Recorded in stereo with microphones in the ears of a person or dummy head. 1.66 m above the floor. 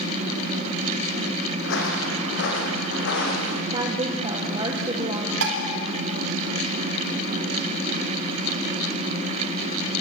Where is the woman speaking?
25° right (ahead or behind), 1.6 m.